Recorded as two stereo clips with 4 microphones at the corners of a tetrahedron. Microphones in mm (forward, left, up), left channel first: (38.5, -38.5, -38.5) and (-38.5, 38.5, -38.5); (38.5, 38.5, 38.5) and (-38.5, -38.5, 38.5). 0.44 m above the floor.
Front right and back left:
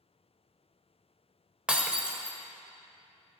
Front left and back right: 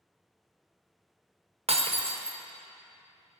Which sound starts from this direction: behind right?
Breaking glass, at 1.7 s.